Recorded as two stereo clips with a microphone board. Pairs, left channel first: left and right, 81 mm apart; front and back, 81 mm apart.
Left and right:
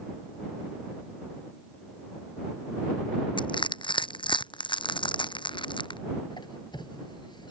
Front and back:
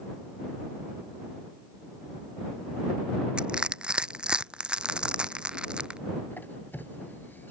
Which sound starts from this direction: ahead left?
A squeak, at 6.3 s.